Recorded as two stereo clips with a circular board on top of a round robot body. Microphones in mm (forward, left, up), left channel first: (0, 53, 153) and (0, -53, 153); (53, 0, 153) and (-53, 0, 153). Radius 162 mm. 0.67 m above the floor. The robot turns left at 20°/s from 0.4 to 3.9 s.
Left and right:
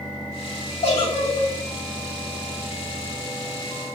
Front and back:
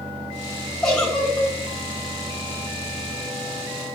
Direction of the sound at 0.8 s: 85° left.